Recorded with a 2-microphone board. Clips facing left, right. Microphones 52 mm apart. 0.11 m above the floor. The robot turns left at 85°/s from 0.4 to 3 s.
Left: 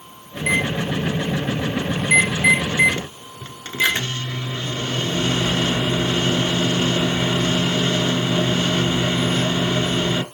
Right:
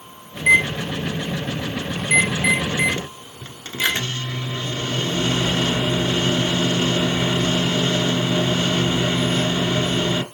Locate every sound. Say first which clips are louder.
0.4 s a microwave: right 4 dB; 10° right (ahead or behind), 0.9 m; by 10.2 s 20° left (ahead or behind), 0.9 m